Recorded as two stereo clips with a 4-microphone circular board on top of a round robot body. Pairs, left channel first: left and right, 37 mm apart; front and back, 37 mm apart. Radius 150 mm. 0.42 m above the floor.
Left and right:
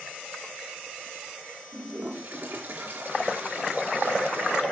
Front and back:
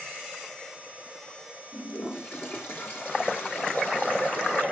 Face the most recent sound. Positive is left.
turn(degrees=-40)